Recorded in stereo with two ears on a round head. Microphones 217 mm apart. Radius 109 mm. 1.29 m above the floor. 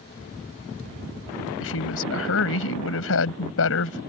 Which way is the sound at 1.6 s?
60° left (ahead or behind).